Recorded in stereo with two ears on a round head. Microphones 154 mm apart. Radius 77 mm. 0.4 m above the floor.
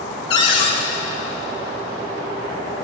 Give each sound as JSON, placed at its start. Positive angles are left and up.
{"t": 0.3, "sound": "a cupboard door", "side_deg": 30, "distance_m": 1.5}